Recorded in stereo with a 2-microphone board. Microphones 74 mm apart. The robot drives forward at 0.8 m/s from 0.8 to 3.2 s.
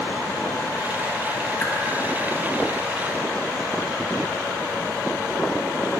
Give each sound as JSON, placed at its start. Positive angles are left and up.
{"t": 1.6, "sound": "a whoosh", "side_deg": 20, "distance_m": 1.9}